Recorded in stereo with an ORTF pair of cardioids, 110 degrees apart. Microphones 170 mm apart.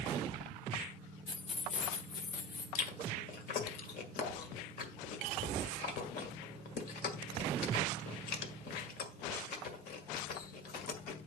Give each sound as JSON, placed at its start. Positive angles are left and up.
{"t": 1.3, "sound": "keys jangling", "azimuth_deg": 25, "distance_m": 1.1}
{"t": 2.8, "sound": "chewing", "azimuth_deg": 65, "distance_m": 1.8}